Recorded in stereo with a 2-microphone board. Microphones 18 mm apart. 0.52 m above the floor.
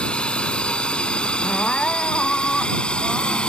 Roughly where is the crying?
Left.